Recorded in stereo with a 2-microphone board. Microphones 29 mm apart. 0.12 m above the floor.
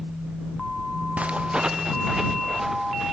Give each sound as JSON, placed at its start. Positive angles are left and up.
{"t": 1.2, "sound": "footsteps", "side_deg": -55}